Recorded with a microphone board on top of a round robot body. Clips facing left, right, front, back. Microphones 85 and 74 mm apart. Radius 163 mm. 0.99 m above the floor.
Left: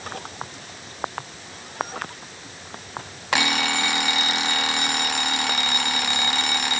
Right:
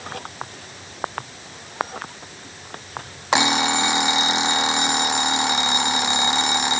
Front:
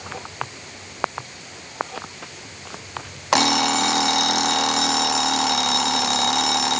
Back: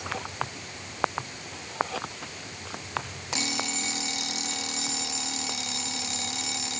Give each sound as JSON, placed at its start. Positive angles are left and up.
{"t": 3.3, "sound": "an alarm clock", "azimuth_deg": -20}